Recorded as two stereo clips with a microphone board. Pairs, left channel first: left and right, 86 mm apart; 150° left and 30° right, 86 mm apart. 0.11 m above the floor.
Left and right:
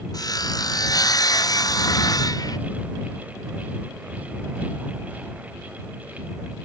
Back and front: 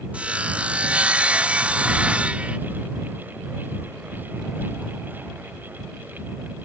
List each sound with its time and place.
0.1 s sawing: 45° left